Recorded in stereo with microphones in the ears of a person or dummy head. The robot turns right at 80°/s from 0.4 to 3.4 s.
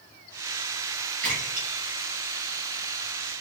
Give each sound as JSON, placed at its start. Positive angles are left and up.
{"t": 1.2, "sound": "a splash", "side_deg": -25, "distance_m": 0.9}